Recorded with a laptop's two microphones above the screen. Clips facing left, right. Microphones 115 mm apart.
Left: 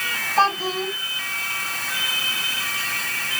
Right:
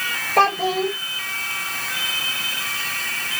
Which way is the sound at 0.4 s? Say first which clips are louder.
Right 3 dB; 65° right (ahead or behind).